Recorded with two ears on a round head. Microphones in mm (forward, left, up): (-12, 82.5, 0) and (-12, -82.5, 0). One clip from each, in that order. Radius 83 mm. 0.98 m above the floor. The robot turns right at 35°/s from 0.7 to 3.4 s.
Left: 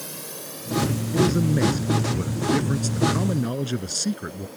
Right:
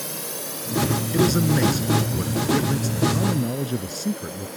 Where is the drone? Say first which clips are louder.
Right 5 dB; 15° right (ahead or behind); by 4.6 s 35° right (ahead or behind).